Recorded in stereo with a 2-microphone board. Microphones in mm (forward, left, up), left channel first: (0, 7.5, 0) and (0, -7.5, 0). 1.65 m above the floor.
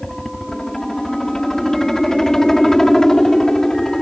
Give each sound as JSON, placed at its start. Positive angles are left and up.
{"t": 0.0, "sound": "a helicopter", "side_deg": 30}